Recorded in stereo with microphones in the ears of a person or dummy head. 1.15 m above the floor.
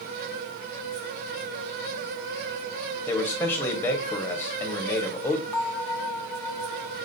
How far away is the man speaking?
About 1.5 m.